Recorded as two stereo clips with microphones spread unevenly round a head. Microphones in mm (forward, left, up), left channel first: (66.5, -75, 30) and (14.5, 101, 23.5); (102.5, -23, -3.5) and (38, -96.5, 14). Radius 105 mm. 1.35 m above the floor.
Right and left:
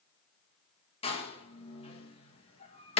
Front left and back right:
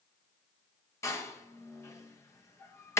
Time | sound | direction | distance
1.0 | a door slam | 15° right | 1.7 m